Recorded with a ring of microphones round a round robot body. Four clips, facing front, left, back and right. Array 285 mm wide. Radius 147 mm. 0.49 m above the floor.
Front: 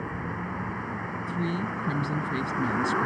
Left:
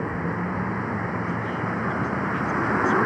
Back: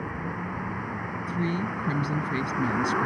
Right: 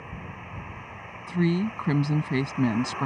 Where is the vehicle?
90° left.